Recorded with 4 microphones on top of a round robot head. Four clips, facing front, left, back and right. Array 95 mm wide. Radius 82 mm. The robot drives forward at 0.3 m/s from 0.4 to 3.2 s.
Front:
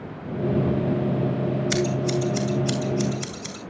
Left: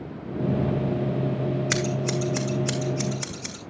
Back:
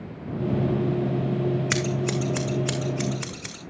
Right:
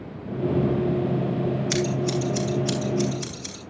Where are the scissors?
145° left, 1.9 m; by 3.6 s 150° left, 2.5 m.